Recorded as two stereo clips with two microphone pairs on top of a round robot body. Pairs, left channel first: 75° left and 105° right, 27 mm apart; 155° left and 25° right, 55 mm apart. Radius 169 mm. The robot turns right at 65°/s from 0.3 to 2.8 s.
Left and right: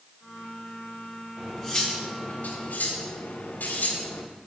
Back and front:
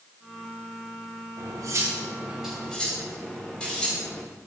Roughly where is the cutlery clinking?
Ahead.